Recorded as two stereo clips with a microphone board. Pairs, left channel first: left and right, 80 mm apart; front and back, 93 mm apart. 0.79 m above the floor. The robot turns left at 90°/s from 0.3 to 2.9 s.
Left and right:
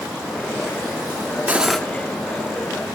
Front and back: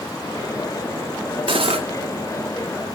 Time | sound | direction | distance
1.5 | cutlery clinking | 160° right | 0.6 m